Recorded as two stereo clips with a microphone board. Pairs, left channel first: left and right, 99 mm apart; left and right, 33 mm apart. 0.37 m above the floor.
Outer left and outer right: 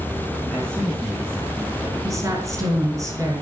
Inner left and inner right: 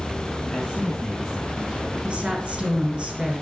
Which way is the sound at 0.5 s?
5° left (ahead or behind).